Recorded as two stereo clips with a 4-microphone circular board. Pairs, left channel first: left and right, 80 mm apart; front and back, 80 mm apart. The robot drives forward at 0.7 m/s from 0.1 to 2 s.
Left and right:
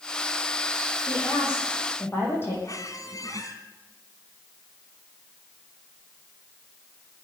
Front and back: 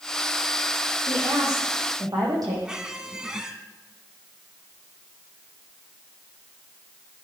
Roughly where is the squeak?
Left.